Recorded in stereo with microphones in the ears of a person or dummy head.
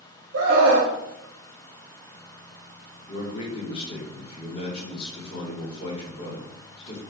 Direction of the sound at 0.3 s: 75° right (ahead or behind).